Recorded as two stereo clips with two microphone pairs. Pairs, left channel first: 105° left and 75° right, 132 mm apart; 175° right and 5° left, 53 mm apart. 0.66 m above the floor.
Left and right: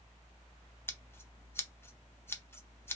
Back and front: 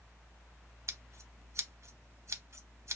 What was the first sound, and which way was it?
Scissors, 30° left.